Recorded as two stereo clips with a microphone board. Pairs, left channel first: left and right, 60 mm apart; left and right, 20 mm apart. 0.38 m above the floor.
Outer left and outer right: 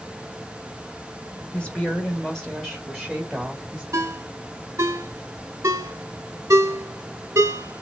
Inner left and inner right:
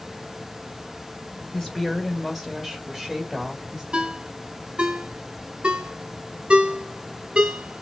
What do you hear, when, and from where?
1.5 s a woman speaking: 20° left (ahead or behind), 1.5 m; by 3.8 s 10° right (ahead or behind), 2.0 m
3.9 s a ringtone: 65° right (ahead or behind), 1.1 m